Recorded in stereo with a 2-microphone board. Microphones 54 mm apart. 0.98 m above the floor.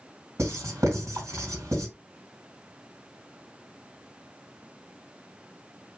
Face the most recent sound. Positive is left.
turn(degrees=-70)  # may be behind; listen again after turning